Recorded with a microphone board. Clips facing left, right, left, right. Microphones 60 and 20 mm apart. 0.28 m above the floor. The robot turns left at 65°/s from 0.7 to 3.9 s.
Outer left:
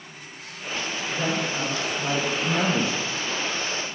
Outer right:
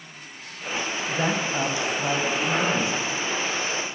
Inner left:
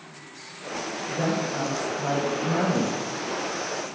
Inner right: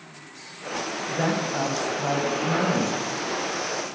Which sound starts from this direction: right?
A woman speaking, at 1.1 s.